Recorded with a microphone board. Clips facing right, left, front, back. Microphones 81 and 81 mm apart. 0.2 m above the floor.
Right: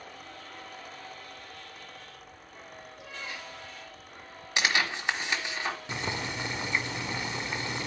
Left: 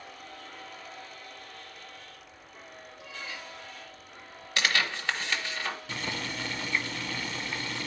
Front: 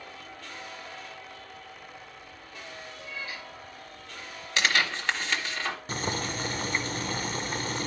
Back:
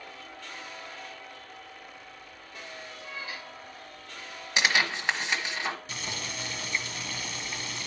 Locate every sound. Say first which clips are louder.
3.0 s a cat meowing: even, front 1 dB; 115° right, 4.5 m
4.6 s tearing paper: right 1 dB, even; 130° right, 1.5 m
5.9 s boiling: right 2 dB, front 6 dB; 30° right, 0.5 m